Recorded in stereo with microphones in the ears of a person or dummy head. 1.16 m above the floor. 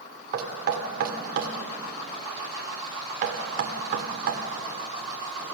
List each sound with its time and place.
0.3 s knocking: 50° right (ahead or behind), 2 m